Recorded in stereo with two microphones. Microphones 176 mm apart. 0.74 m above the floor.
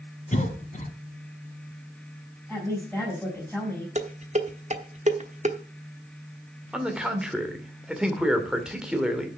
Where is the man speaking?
5° right (ahead or behind), 2.0 m.